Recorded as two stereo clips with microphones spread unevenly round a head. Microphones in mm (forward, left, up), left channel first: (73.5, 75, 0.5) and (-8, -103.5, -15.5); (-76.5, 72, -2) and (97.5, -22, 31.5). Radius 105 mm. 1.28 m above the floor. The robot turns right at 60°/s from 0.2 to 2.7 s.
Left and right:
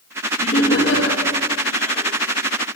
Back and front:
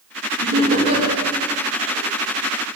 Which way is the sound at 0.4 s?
5° left.